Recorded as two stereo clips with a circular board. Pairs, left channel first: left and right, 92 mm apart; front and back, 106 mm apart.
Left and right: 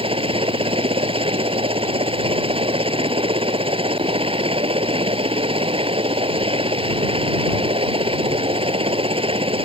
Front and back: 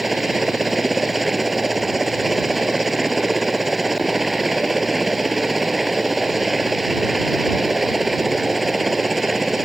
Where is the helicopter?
90° right.